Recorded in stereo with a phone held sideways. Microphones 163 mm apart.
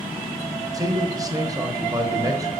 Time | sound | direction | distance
0.7 | a man speaking | 25° right (ahead or behind) | 1.0 m